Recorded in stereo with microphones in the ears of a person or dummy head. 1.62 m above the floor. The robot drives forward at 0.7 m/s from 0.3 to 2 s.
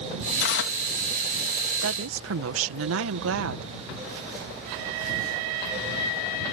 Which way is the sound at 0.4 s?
70° left (ahead or behind).